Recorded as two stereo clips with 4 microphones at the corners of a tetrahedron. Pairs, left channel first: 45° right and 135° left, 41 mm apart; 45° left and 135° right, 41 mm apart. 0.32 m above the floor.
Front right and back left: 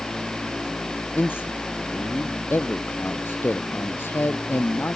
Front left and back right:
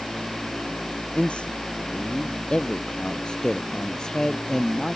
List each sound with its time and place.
1.1 s a man speaking: 20° right; by 5.0 s 35° right